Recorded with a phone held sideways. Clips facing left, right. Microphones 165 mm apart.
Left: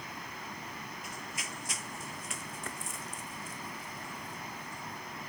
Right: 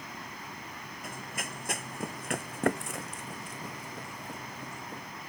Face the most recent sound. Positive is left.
turn(degrees=-70)  # may be behind; listen again after turning